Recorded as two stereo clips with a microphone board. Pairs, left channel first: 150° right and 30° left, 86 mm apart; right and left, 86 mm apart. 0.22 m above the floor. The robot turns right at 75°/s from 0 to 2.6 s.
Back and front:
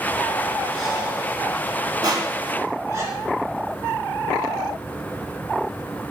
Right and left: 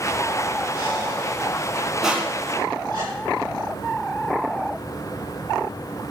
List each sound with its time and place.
0.7 s breathing: 65° right, 3 m; by 3.0 s 75° left, 3 m
2.0 s crushing: 5° left, 1.3 m; by 2.8 s 50° left, 1.3 m